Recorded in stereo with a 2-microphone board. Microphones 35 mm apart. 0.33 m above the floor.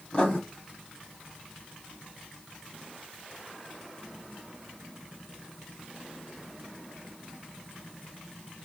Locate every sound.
0.1 s writing: 30° left (ahead or behind), 1.5 m